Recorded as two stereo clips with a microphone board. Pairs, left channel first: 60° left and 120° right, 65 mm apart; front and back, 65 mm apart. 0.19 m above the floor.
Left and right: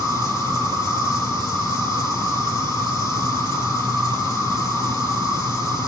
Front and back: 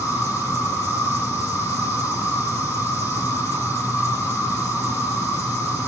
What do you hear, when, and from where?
0.0 s an insect: 50° left, 4.5 m